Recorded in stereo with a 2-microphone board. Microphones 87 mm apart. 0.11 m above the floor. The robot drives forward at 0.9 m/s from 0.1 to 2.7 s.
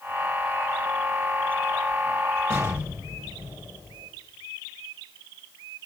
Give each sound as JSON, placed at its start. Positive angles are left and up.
{"t": 2.5, "sound": "an explosion", "side_deg": -40, "distance_m": 6.0}